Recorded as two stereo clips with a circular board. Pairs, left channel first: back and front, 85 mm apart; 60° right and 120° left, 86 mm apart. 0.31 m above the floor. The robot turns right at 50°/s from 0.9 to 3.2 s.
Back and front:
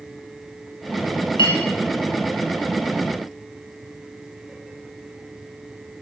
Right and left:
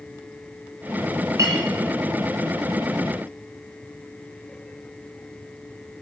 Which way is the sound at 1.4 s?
170° left.